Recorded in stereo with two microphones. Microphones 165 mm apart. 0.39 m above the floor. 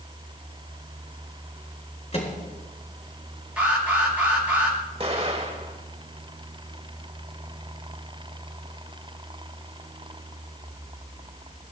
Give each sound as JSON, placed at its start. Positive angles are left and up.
{"t": 2.1, "sound": "a microwave", "side_deg": 40, "distance_m": 4.0}
{"t": 3.6, "sound": "an alarm", "side_deg": -10, "distance_m": 6.0}
{"t": 5.0, "sound": "an explosion", "side_deg": -40, "distance_m": 2.0}